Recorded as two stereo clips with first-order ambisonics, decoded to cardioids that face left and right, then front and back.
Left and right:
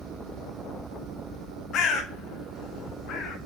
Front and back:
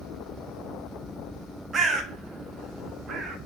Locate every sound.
1.7 s a bird: 120° left, 1.1 m